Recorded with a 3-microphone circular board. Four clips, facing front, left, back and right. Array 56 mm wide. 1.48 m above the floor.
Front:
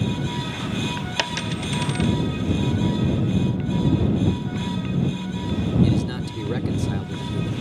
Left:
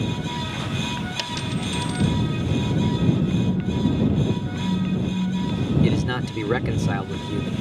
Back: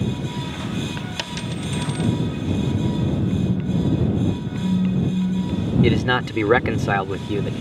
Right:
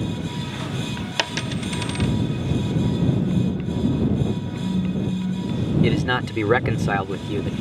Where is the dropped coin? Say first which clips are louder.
Right 2 dB, front 2 dB; 60° right.